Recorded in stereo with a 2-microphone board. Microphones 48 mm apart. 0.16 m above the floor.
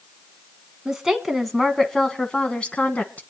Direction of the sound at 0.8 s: 10° right (ahead or behind).